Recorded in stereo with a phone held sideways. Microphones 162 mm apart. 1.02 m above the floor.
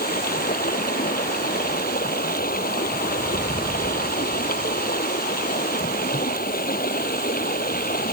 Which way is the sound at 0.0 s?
65° left (ahead or behind).